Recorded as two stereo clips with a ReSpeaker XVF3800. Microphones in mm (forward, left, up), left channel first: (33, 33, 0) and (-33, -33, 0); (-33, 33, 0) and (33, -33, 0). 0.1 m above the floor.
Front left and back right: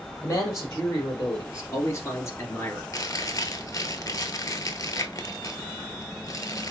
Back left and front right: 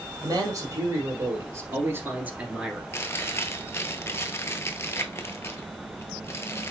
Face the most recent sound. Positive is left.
turn(degrees=85)